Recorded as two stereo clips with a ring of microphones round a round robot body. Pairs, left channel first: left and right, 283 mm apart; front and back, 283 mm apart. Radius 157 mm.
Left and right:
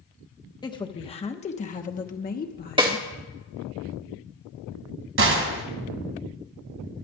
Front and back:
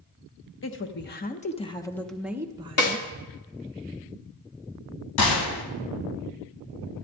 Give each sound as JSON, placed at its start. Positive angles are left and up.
{"t": 0.6, "sound": "a woman speaking", "azimuth_deg": 20, "distance_m": 1.4}
{"t": 2.8, "sound": "a snare drum", "azimuth_deg": -20, "distance_m": 2.0}
{"t": 5.2, "sound": "a gunshot", "azimuth_deg": -45, "distance_m": 1.9}